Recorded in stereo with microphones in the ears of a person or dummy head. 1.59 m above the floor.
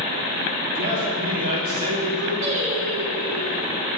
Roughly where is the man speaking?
Right.